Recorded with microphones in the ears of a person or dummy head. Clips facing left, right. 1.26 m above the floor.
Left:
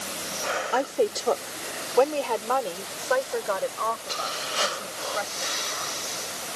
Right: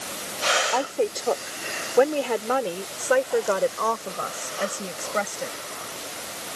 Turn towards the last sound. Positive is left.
turn(degrees=-60)  # may be behind; listen again after turning